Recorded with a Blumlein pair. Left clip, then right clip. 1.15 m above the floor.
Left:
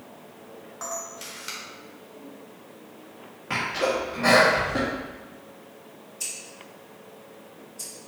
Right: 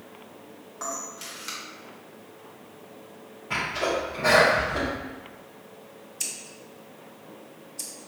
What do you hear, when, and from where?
0.8 s a camera shutter: straight ahead, 1.3 m
3.5 s a sneeze: 70° left, 1.7 m
6.2 s scissors: 60° right, 1.1 m